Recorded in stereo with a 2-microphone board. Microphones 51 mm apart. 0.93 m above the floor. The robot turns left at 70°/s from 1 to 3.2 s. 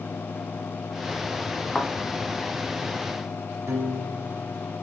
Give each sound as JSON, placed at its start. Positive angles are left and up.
{"t": 1.8, "sound": "a thud", "side_deg": 25, "distance_m": 0.9}
{"t": 3.7, "sound": "a piano", "side_deg": -70, "distance_m": 1.1}